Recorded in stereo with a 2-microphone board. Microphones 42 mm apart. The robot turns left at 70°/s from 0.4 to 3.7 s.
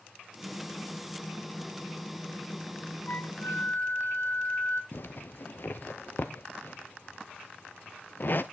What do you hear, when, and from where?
3.1 s a flute: 120° left, 0.5 m; by 4.8 s 75° left, 0.5 m
4.9 s a zipper: 50° left (ahead or behind), 0.6 m